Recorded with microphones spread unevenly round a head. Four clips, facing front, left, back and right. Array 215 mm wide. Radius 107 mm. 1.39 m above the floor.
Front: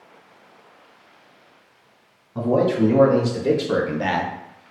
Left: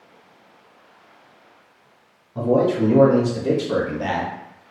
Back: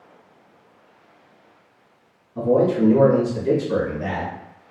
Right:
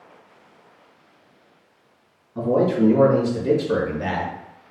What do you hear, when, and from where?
2.4 s a man speaking: 15° left, 1.6 m; by 4.3 s 10° left, 0.6 m